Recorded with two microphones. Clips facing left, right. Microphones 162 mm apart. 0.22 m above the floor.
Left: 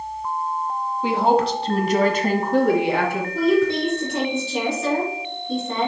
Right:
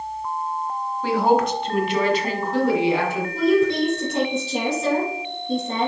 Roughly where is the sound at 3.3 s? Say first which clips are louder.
Right 1 dB; right.